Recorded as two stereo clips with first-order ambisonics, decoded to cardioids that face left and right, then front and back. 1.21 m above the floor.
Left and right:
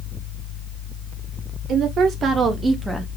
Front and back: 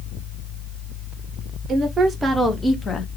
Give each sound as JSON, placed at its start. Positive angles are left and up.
{"t": 1.7, "sound": "a woman speaking", "azimuth_deg": -120, "distance_m": 0.7}